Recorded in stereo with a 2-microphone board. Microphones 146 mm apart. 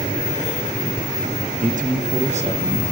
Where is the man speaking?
65° right (ahead or behind), 0.7 m; by 2.8 s 45° right (ahead or behind), 2 m.